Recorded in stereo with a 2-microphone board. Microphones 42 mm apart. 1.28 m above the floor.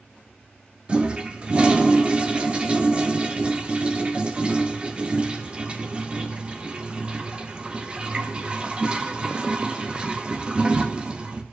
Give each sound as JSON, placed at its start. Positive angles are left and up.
{"t": 0.9, "sound": "a toilet flushing", "side_deg": -25, "distance_m": 0.5}